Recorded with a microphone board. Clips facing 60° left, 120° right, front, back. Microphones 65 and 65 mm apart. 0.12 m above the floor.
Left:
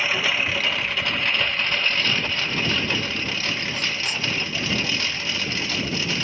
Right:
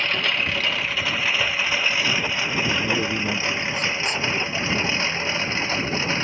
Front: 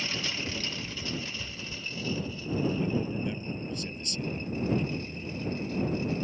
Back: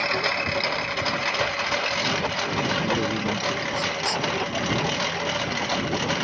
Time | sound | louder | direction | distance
0.0 | a lawn mower | even, back 10 dB | 145° left | ?
2.8 | a man speaking | right 3 dB, back 6 dB | 140° right | ?